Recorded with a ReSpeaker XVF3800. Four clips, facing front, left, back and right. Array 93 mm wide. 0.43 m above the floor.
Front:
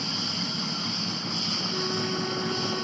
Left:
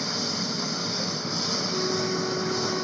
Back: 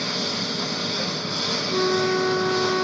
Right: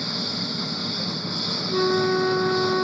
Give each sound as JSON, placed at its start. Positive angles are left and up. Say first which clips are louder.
{"t": 0.0, "sound": "a lawn mower", "louder": "even, back 5 dB", "azimuth_deg": 165}
{"t": 1.7, "sound": "a flute", "louder": "right 9 dB, back 10 dB", "azimuth_deg": -130}